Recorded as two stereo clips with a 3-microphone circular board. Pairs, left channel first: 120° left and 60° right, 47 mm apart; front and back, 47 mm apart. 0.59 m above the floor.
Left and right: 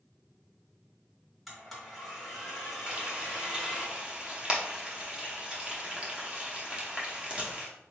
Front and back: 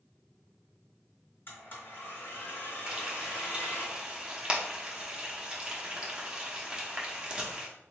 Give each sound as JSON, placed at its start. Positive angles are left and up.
{"t": 1.5, "sound": "a blender", "azimuth_deg": 30, "distance_m": 1.6}
{"t": 2.9, "sound": "frying", "azimuth_deg": -120, "distance_m": 0.9}